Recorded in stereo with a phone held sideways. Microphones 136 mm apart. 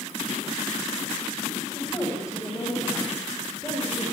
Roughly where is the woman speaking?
Left.